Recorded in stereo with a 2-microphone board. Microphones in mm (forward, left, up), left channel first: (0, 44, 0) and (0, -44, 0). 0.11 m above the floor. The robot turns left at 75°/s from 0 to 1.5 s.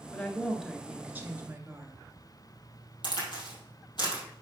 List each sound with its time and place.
0.1 s a woman speaking: 35° left, 1.5 m; by 2.0 s 70° right, 1.5 m
3.0 s a crack: 60° left (ahead or behind), 3.5 m